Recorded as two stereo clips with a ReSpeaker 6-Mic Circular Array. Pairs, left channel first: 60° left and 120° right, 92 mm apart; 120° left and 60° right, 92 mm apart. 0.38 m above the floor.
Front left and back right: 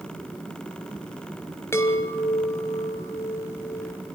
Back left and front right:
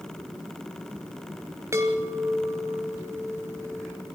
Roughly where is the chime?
Ahead.